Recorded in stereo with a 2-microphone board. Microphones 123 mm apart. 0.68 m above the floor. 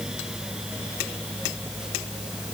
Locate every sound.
Only background noise.